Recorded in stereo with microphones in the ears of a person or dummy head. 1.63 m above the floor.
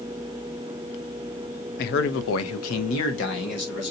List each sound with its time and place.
1.8 s a man speaking: 55° left (ahead or behind), 0.6 m; by 3.9 s 60° left (ahead or behind), 1.3 m